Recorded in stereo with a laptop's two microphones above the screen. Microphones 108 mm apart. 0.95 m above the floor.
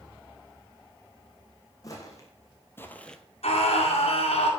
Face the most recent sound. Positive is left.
turn(degrees=80)